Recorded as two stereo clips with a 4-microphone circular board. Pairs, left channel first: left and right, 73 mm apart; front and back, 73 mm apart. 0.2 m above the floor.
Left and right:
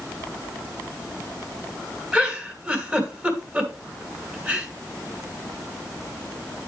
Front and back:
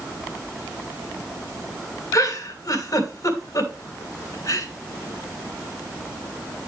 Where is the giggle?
25° right, 3 m.